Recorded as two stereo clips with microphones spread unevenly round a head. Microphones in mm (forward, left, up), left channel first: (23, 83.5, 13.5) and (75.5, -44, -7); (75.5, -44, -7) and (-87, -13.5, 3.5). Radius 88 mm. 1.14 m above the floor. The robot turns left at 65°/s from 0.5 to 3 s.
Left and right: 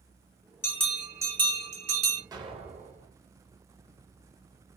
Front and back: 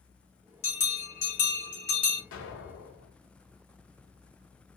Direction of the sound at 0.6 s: 40° left.